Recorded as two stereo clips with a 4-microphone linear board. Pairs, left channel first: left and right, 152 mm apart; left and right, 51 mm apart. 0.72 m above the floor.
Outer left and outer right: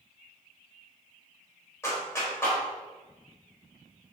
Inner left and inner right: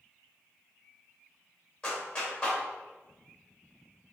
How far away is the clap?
About 2.5 m.